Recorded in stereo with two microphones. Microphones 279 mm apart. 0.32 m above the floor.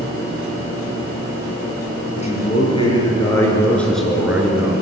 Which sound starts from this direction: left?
A man speaking, at 2.1 s.